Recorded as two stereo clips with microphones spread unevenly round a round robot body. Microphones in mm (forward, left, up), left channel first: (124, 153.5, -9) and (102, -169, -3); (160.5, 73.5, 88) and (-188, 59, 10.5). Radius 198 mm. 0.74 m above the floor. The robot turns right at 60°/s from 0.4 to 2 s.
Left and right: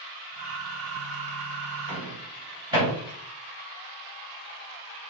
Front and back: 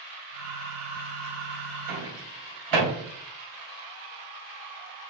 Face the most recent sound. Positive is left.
turn(degrees=-175)